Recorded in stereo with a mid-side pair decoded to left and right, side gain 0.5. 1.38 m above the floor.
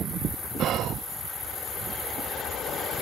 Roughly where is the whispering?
Ahead right.